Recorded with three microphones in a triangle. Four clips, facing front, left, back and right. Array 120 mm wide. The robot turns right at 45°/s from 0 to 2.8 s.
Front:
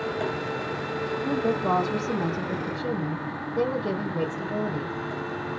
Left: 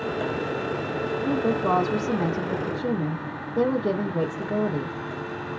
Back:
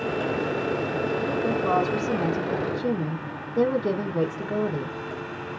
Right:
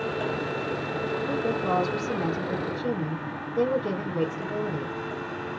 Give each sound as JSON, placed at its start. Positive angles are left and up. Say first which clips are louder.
{"t": 1.2, "sound": "a woman speaking", "louder": "left 5 dB, front 2 dB", "azimuth_deg": 60, "distance_m": 0.9}